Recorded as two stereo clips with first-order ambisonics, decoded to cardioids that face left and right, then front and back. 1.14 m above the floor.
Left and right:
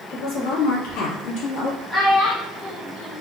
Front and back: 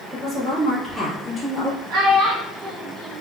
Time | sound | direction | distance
0.1 | a woman speaking | 110° left | 2 m
1.9 | a child speaking | straight behind | 1.3 m